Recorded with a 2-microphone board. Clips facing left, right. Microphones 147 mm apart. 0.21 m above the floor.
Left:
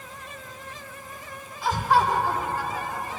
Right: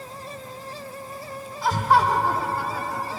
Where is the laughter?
40° right (ahead or behind), 3 m.